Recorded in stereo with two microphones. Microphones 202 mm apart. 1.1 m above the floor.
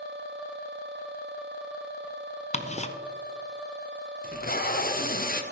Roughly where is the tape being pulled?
Left.